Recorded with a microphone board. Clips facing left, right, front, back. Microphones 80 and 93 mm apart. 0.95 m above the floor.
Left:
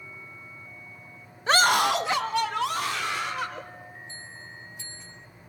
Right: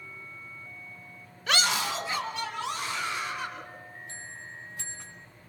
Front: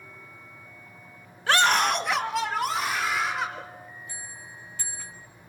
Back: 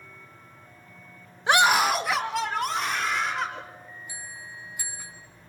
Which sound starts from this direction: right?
A bell, at 4.1 s.